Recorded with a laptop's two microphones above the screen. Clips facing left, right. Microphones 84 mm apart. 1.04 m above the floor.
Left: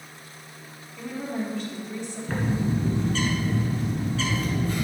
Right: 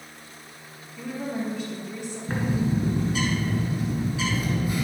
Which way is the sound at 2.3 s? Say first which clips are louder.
Right 1 dB; 10° right (ahead or behind).